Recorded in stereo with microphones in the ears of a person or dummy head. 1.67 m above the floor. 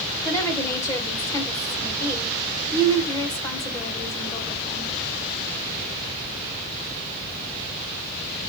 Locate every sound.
0.2 s a woman speaking: 15° left (ahead or behind), 1.3 m